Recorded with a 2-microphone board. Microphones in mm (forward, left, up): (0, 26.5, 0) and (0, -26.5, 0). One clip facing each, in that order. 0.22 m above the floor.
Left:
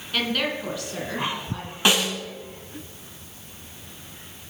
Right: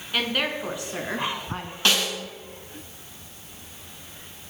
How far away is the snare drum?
About 2.5 m.